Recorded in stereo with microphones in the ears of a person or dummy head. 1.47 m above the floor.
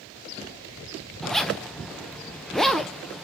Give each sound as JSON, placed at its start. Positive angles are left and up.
{"t": 1.2, "sound": "a zipper", "side_deg": 5, "distance_m": 0.5}